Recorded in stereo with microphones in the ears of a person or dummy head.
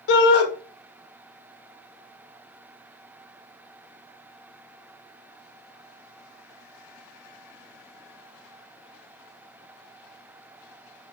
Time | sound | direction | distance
0.1 | a shout | 60° left (ahead or behind) | 1.0 m